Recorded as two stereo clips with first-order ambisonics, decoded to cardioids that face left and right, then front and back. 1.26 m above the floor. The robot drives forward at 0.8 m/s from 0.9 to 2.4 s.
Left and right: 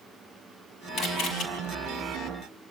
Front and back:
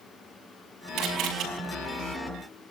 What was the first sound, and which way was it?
A camera shutter, 140° left.